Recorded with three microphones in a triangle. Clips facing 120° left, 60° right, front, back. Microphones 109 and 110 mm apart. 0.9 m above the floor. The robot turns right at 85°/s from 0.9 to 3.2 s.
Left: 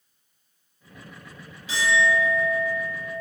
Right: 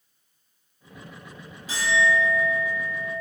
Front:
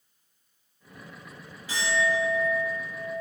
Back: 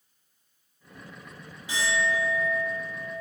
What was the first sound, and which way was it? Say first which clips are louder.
A clink: left 1 dB, front 1 dB; 110° right.